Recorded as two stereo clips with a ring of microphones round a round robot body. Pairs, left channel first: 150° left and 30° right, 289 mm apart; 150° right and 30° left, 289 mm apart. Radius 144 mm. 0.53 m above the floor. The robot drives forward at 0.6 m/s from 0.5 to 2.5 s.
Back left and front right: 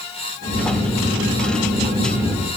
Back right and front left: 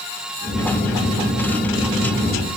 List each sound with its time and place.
Only background noise.